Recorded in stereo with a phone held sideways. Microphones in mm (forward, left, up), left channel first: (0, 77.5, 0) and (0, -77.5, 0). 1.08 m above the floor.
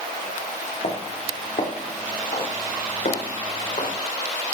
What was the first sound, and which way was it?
Footsteps, 50° left (ahead or behind).